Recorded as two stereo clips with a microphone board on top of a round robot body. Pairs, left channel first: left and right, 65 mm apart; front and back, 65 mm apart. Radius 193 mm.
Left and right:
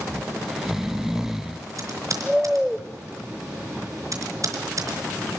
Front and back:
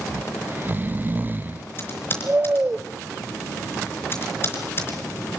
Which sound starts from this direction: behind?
Snoring, at 0.1 s.